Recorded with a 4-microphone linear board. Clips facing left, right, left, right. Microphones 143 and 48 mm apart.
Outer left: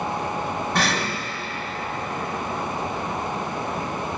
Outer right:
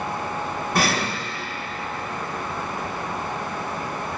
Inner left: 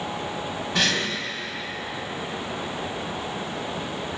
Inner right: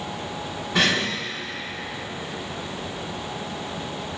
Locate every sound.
0.8 s breathing: 5° right (ahead or behind), 1.8 m